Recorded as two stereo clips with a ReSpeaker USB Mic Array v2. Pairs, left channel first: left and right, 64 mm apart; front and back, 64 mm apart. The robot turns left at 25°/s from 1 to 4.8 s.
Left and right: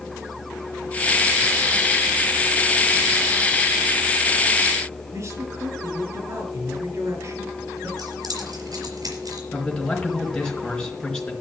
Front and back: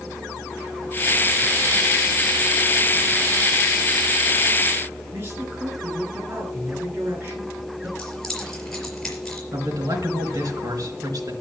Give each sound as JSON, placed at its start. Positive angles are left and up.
{"t": 5.1, "sound": "a man speaking", "azimuth_deg": -130, "distance_m": 5.0}
{"t": 8.0, "sound": "keys jangling", "azimuth_deg": -85, "distance_m": 4.5}
{"t": 9.5, "sound": "a man speaking", "azimuth_deg": 165, "distance_m": 4.5}